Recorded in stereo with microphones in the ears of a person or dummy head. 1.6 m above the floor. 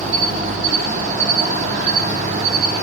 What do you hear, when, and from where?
0.0 s an insect: 40° right (ahead or behind), 2.0 m